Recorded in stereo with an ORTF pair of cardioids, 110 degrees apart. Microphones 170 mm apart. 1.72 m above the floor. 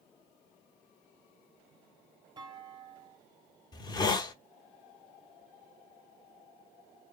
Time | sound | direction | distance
2.4 | a clunk | 25° right | 0.7 m
3.7 | a hiss | 25° left | 0.8 m